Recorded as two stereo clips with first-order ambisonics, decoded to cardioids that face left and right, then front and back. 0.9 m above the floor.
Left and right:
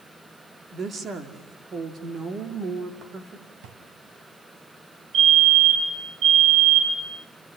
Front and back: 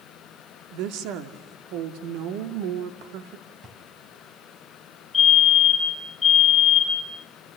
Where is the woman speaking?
155° right, 2.5 m.